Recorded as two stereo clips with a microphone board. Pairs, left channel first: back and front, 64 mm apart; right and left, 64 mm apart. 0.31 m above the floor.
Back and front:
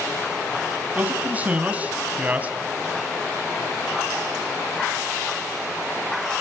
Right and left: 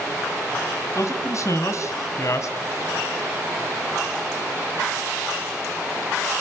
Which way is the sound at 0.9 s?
65° right.